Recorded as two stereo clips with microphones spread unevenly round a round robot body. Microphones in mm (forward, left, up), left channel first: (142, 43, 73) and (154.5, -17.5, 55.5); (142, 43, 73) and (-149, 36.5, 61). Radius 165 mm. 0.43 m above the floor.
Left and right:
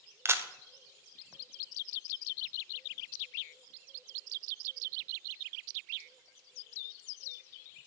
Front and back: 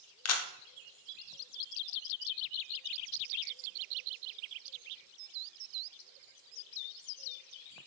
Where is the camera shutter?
35° right, 0.8 m.